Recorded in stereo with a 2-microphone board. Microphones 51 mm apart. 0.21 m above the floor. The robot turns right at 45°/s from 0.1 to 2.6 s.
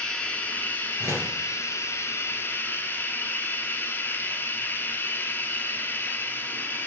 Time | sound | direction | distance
0.0 | running water | 15° left | 1.3 m
1.0 | a door slam | 70° right (ahead or behind) | 2 m